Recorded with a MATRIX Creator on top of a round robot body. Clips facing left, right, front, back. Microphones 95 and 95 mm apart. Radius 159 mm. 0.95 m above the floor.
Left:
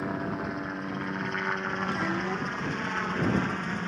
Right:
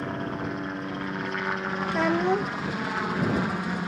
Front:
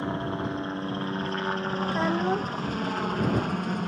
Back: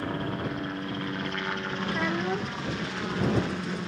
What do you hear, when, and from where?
0.0 s a helicopter: 5° left; by 3.9 s 15° right
1.9 s a child speaking: 60° right